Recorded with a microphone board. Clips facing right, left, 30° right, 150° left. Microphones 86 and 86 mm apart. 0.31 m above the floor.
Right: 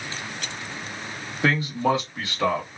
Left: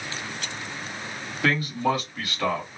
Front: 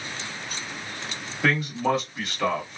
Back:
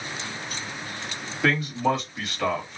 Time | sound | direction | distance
1.4 | a man speaking | 120° right | 1.4 m